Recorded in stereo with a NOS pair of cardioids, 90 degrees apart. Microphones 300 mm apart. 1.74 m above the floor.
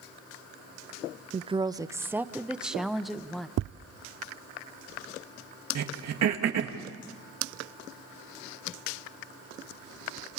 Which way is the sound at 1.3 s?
25° right.